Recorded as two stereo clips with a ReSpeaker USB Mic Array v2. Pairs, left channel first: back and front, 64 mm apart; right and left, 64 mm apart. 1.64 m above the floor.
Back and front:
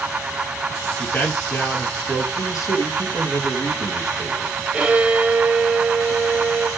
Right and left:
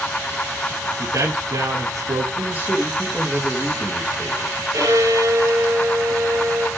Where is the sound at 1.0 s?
125° left, 3 m.